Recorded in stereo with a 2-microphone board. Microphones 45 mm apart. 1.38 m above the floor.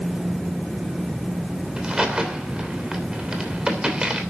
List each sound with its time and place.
1.8 s a crack: 20° right (ahead or behind), 3 m